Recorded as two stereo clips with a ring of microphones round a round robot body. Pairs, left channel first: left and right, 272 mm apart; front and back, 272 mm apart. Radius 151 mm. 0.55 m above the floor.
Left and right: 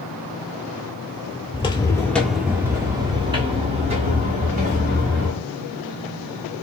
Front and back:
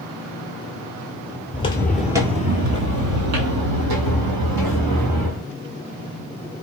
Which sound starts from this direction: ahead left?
Footsteps, at 1.5 s.